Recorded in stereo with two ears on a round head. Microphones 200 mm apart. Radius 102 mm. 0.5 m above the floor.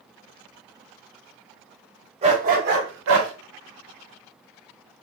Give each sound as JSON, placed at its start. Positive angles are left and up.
{"t": 2.2, "sound": "a dog barking", "side_deg": -25, "distance_m": 0.8}